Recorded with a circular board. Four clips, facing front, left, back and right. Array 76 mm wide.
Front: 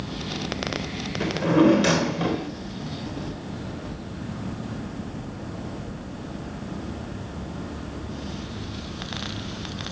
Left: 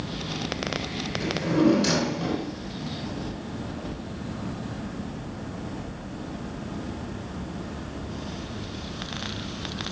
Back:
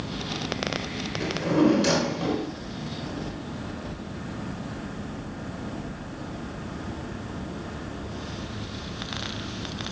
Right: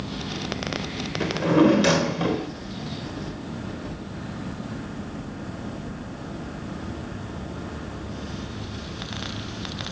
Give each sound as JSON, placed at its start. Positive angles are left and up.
{"t": 1.2, "sound": "a drawer", "azimuth_deg": -55, "distance_m": 1.3}